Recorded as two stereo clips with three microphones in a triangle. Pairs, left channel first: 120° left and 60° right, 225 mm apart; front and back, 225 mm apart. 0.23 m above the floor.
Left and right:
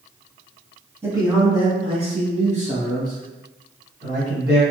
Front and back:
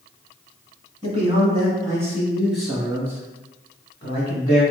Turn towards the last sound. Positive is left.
turn(degrees=-45)